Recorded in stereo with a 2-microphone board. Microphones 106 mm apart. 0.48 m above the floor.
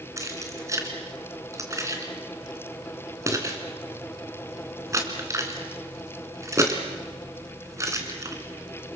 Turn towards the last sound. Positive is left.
turn(degrees=-30)  # may be behind; listen again after turning